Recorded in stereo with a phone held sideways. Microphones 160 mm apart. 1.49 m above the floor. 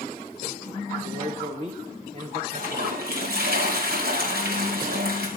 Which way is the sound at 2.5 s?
75° right (ahead or behind).